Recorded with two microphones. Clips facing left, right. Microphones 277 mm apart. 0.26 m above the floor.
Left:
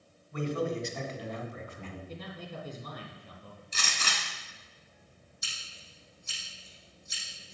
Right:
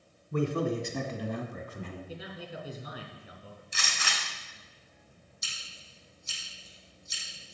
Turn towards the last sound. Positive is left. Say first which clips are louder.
# left 1 dB
turn(degrees=65)  # may be behind; listen again after turning